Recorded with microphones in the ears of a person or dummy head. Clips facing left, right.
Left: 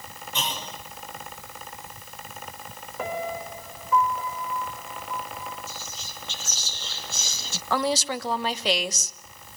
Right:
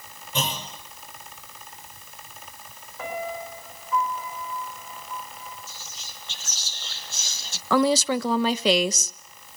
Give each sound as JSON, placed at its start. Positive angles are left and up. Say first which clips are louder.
{"t": 0.3, "sound": "a clunk", "louder": "right 3 dB", "side_deg": -40, "distance_m": 5.0}
{"t": 3.0, "sound": "a piano", "louder": "left 1 dB", "side_deg": 50, "distance_m": 4.0}
{"t": 5.7, "sound": "whispering", "louder": "left 5 dB", "side_deg": 65, "distance_m": 0.7}
{"t": 7.7, "sound": "a woman speaking", "louder": "right 5 dB", "side_deg": -70, "distance_m": 1.3}